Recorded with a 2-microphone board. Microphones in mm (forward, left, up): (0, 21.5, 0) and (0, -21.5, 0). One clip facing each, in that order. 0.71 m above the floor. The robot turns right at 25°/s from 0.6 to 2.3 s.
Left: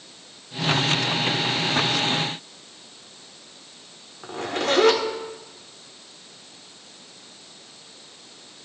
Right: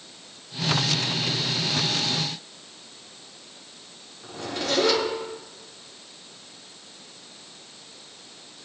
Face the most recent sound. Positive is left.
turn(degrees=55)  # may be behind; listen again after turning